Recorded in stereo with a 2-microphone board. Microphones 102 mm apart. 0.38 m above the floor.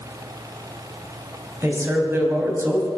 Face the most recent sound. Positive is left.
turn(degrees=-25)  # may be behind; listen again after turning